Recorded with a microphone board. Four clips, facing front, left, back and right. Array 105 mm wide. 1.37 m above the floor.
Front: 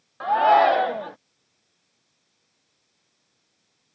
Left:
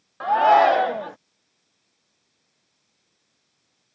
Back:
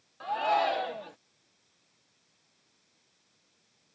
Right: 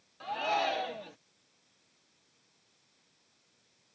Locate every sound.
0.2 s a shout: 55° left